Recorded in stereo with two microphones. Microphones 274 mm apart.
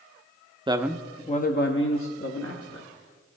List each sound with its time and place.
0.7 s a man speaking: 20° right (ahead or behind), 0.5 m; by 2.9 s 65° left (ahead or behind), 1.4 m